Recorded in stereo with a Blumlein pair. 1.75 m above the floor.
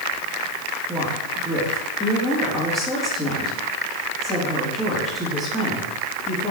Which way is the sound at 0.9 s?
10° right.